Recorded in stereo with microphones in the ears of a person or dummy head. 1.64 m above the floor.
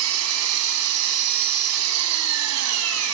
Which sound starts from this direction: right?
An engine running, at 0.0 s.